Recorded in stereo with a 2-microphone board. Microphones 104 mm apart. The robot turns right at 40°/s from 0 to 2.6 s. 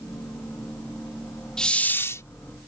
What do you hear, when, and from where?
1.6 s a hiss: 5° left (ahead or behind); by 2.2 s 30° left (ahead or behind)